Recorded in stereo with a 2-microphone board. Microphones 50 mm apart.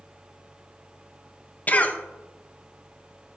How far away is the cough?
About 0.9 m.